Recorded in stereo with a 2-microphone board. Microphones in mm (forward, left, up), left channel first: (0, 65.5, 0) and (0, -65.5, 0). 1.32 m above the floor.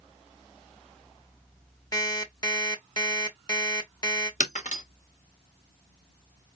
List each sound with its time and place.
1.9 s an alarm clock: 30° left (ahead or behind), 1.5 m
4.4 s breaking glass: 70° left (ahead or behind), 2 m